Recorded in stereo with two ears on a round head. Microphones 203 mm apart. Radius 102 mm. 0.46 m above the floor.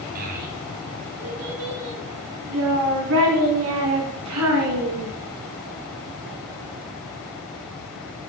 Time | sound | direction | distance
0.1 | a child speaking | 45° right (ahead or behind) | 2.5 m